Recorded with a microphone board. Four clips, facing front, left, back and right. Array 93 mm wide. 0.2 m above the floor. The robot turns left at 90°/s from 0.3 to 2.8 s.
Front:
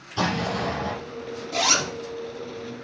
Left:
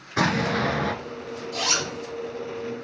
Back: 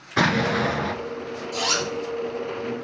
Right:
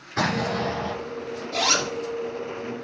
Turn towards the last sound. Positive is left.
turn(degrees=-150)